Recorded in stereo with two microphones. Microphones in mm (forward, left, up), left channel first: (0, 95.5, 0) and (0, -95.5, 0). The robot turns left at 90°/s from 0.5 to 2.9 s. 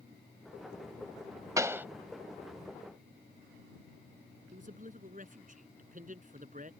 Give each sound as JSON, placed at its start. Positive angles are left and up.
{"t": 1.6, "sound": "a pop", "side_deg": -15}
{"t": 4.5, "sound": "a man speaking", "side_deg": -45}